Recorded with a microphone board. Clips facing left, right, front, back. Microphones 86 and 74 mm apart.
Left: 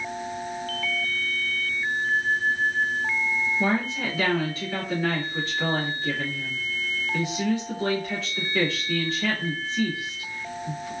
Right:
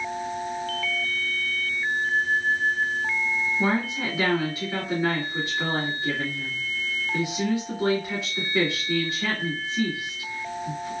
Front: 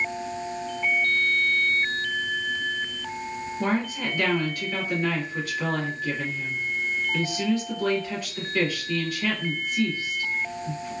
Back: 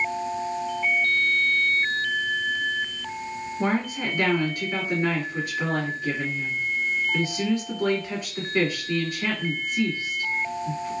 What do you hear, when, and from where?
3.6 s a woman speaking: 135° right, 1.7 m